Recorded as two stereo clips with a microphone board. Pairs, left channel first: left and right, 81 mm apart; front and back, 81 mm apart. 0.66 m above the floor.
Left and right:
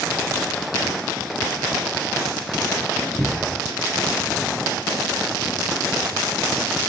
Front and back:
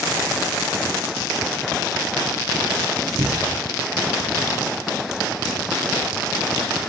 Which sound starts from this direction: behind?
A cupboard door, at 3.2 s.